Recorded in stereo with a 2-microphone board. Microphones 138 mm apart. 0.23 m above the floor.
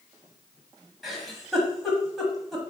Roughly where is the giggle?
Centre.